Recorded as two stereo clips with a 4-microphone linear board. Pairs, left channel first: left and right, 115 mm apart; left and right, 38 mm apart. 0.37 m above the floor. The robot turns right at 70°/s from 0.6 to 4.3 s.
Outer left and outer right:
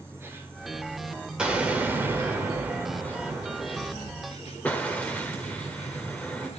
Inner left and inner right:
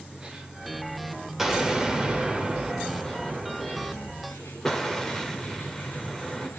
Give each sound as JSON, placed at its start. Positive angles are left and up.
{"t": 0.0, "sound": "an insect", "azimuth_deg": -160, "distance_m": 1.5}
{"t": 1.4, "sound": "an explosion", "side_deg": -5, "distance_m": 1.3}